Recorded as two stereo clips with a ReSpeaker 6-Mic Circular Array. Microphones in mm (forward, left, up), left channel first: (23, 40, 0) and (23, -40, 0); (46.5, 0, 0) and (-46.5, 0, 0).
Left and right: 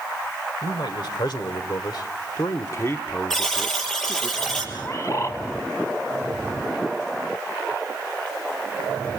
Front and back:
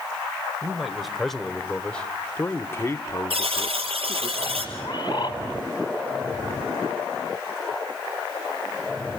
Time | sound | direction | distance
0.6 | a man speaking | 95° left | 1.9 m
3.3 | a buzzer | 175° left | 5 m
4.8 | a bird | 40° left | 2 m